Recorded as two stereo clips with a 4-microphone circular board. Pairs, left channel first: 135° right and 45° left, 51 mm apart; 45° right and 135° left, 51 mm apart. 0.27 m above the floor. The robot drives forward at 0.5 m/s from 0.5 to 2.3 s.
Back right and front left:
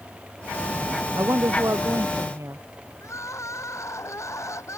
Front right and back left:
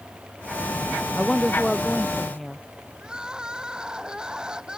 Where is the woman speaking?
35° left; by 2.6 s 40° left.